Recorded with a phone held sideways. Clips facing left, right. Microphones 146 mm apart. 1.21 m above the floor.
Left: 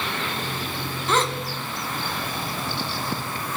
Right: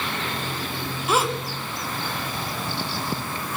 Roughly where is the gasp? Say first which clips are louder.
Right 1 dB; centre.